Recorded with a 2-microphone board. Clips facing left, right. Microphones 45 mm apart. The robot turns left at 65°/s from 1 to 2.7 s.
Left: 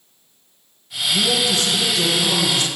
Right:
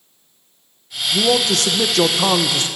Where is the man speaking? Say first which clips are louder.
Right 3 dB; 40° right, 1.0 m; by 2.7 s 140° right, 1.0 m.